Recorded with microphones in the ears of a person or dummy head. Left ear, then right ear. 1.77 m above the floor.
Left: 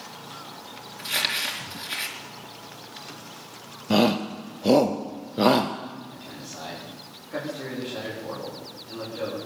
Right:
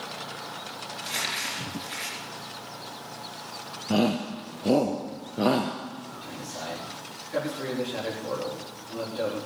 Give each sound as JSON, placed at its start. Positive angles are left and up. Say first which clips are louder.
{"t": 1.0, "sound": "crumpling", "louder": "left 5 dB", "side_deg": 30, "distance_m": 4.0}
{"t": 3.9, "sound": "a shout", "louder": "left 4 dB", "side_deg": 25, "distance_m": 0.7}
{"t": 6.1, "sound": "a man speaking", "louder": "right 2 dB", "side_deg": -5, "distance_m": 4.5}